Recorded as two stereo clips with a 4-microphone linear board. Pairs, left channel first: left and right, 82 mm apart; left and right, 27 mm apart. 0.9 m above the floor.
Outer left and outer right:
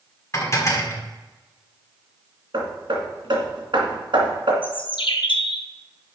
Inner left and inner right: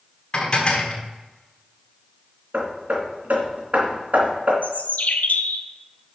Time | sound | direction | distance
0.3 | dishes clattering | 40° left (ahead or behind) | 1.6 m
2.5 | hammering | 75° right (ahead or behind) | 2.5 m
4.6 | a bird | 85° left | 0.9 m